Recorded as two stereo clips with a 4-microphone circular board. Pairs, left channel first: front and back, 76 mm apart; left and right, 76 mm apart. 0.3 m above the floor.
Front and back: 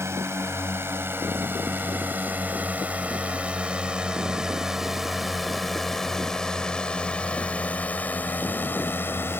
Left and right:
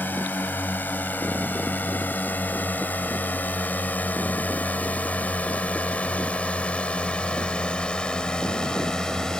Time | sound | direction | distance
0.0 | a drone | 145° left | ?